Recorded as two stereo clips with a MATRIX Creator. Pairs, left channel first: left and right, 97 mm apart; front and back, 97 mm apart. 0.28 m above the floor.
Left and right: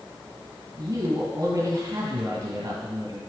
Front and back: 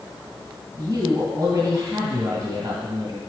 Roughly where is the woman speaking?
Behind right.